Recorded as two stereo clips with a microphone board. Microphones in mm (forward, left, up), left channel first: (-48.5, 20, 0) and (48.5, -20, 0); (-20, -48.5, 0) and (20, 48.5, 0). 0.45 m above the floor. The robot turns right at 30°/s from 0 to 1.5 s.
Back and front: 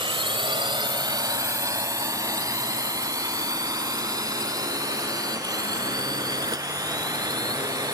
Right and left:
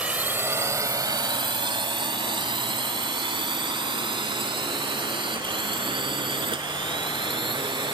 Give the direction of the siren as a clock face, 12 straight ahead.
I don't hear a siren.